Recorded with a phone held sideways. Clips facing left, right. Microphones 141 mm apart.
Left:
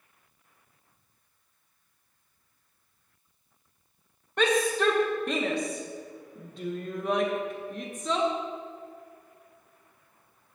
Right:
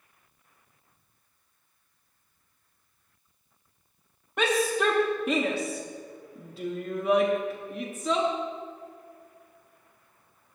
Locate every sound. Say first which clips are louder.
4.4 s a shout: left 1 dB; 5° right (ahead or behind), 0.9 m